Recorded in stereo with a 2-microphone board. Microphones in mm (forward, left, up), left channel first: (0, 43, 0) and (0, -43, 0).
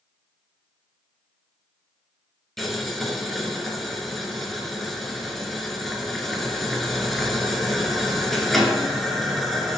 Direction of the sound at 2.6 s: Centre (ahead or behind).